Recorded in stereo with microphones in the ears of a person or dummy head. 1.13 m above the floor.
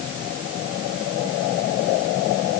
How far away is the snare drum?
No snare drum in this recording.